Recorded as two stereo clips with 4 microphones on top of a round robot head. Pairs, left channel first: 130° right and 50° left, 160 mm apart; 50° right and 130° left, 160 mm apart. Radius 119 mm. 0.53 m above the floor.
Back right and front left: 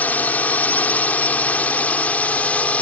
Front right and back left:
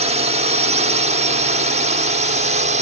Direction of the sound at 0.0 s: 155° left.